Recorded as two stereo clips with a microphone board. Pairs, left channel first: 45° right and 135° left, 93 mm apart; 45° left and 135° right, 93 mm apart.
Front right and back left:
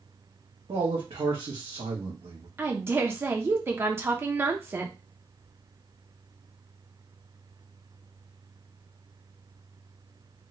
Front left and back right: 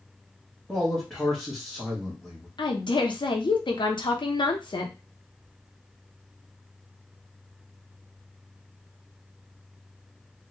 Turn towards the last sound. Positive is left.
turn(degrees=70)